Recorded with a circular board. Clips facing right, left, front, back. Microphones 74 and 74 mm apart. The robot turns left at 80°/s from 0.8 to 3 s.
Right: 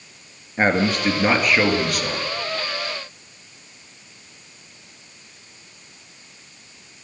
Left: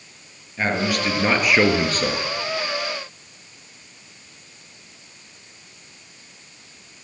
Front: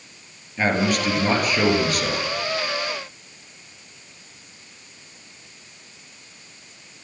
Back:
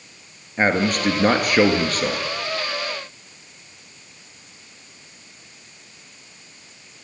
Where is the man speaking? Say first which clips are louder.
Right 3 dB, back 2 dB; 135° right, 2 m; by 2.2 s 110° left, 2 m.